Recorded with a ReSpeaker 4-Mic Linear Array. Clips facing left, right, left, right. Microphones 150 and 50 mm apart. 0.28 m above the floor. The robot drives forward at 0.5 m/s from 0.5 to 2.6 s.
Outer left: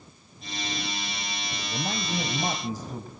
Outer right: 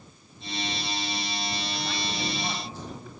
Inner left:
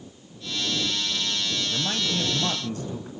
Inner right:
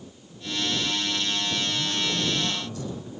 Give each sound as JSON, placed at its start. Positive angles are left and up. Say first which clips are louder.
{"t": 1.7, "sound": "a man speaking", "louder": "outer left 2 dB, even", "side_deg": 45, "distance_m": 1.5}